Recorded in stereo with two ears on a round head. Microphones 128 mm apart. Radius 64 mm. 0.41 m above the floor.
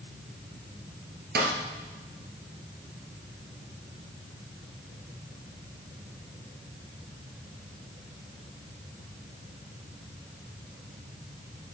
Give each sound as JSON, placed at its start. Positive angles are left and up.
{"t": 1.4, "sound": "a snare drum", "side_deg": -75, "distance_m": 2.5}